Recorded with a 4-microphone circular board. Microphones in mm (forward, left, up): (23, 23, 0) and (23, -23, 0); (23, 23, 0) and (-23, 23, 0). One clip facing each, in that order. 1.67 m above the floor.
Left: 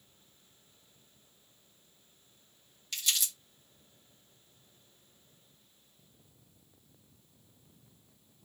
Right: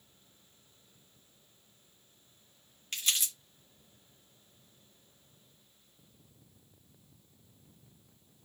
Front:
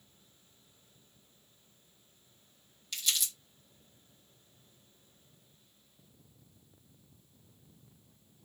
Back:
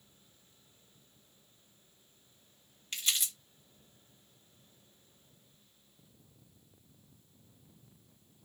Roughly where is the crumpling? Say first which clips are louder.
Even, even; behind right.